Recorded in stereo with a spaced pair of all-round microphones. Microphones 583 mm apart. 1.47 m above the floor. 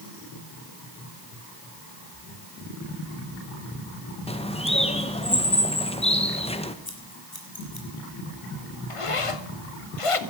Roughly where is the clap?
I don't hear a clap.